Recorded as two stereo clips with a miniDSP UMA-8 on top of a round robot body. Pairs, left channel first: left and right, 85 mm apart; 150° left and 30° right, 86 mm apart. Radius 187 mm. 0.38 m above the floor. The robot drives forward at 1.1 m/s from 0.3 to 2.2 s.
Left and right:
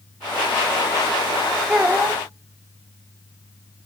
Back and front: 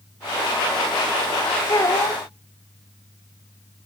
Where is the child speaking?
165° right, 2.5 m; by 2.2 s 170° right, 3 m.